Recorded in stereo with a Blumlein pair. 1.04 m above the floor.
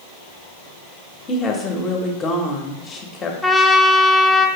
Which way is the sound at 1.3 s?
20° left.